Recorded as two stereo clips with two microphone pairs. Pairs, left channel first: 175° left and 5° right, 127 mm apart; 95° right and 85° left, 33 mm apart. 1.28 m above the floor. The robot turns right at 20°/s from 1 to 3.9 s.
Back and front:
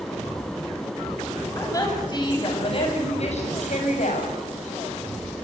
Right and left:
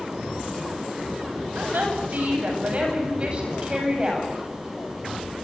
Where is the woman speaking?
110° left, 8.5 m; by 4.3 s 155° left, 8.5 m.